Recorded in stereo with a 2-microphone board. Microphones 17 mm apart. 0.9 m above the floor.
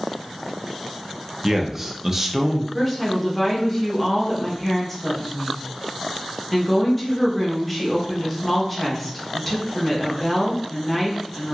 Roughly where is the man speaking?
Centre.